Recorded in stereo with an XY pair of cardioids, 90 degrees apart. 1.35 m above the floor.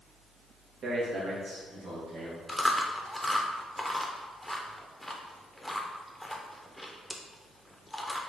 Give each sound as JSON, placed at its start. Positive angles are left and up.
{"t": 0.8, "sound": "a man speaking", "azimuth_deg": -70, "distance_m": 1.0}
{"t": 2.5, "sound": "chewing", "azimuth_deg": 5, "distance_m": 0.6}